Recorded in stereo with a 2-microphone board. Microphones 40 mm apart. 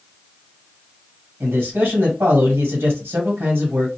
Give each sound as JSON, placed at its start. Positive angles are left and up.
{"t": 1.4, "sound": "a man speaking", "side_deg": -75, "distance_m": 1.3}